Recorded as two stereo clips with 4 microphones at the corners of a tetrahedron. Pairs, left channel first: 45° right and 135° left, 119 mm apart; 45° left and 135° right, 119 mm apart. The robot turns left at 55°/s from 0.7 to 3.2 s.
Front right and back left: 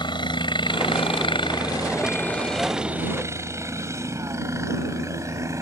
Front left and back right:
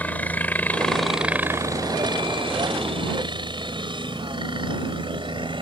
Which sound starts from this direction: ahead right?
A helicopter, at 0.0 s.